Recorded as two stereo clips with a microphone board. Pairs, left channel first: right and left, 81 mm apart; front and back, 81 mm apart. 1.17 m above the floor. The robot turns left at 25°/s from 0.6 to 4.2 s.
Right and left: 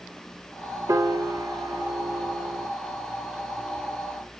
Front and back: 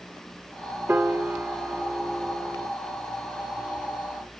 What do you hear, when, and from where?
0.9 s a piano: 125° left, 0.8 m; by 2.7 s 80° left, 0.8 m